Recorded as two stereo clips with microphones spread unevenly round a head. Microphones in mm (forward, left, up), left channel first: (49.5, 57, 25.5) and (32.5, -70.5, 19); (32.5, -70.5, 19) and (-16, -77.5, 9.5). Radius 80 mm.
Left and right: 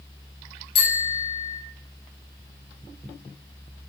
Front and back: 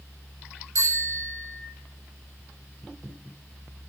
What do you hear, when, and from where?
0.8 s a bicycle bell: 140° left, 6.5 m